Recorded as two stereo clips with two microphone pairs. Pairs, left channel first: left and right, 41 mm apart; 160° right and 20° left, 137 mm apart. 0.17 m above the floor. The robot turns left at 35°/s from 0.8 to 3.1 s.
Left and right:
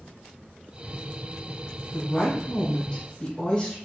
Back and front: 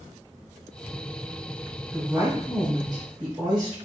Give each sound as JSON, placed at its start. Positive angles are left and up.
{"t": 1.9, "sound": "a woman speaking", "azimuth_deg": 80, "distance_m": 1.5}